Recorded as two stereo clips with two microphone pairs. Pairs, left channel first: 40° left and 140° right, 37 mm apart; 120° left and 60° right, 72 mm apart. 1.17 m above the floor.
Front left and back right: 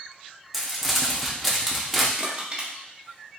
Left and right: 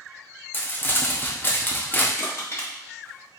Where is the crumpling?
140° left, 0.6 m.